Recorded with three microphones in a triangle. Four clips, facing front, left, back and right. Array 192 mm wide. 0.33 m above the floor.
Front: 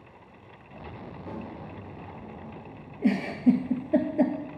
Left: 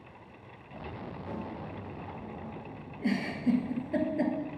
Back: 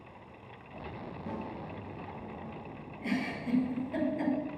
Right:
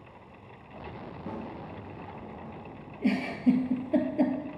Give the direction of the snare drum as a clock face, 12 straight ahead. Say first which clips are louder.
Right 2 dB, front 1 dB; 4 o'clock.